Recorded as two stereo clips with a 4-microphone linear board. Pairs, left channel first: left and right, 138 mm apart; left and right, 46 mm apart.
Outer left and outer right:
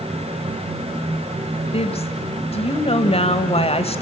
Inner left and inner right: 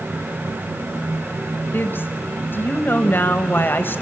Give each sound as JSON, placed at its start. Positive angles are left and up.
{"t": 1.7, "sound": "a woman speaking", "side_deg": 45, "distance_m": 1.4}